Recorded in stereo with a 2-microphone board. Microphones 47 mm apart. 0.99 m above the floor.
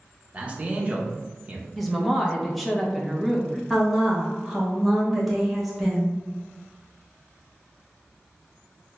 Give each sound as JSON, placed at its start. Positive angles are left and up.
{"t": 0.3, "sound": "a man speaking", "side_deg": -30, "distance_m": 0.7}
{"t": 1.8, "sound": "a woman speaking", "side_deg": 0, "distance_m": 0.7}
{"t": 3.7, "sound": "a woman speaking", "side_deg": 0, "distance_m": 0.9}